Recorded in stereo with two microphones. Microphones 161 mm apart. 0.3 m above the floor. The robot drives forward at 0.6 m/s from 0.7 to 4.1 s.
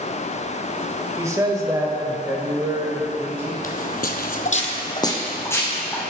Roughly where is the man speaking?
Centre.